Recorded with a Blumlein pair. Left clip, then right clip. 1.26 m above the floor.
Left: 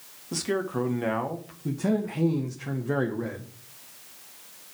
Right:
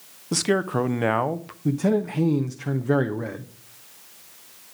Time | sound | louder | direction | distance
0.3 | a man speaking | right 6 dB | 25° right | 0.7 m
1.6 | a man speaking | right 5 dB | 15° right | 0.6 m